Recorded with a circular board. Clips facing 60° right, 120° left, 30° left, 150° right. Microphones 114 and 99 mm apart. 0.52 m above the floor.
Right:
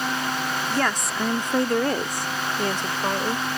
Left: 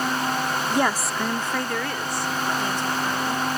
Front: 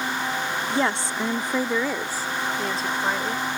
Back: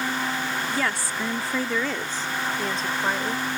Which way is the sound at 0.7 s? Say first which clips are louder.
Left 3 dB, front 3 dB; 65° left.